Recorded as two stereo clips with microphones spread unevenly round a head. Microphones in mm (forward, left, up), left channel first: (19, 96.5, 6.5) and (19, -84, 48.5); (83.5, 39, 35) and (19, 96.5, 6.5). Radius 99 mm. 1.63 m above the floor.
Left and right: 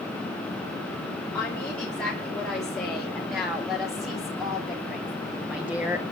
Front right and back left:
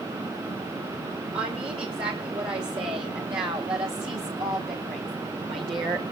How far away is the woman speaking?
About 4.5 m.